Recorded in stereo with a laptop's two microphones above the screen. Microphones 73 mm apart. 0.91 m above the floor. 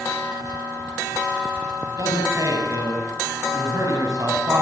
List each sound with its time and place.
1.9 s a man speaking: 45° right (ahead or behind), 7 m